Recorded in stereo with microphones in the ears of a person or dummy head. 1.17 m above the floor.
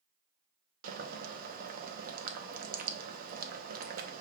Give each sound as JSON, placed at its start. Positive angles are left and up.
{"t": 0.8, "sound": "boiling", "side_deg": -50, "distance_m": 0.9}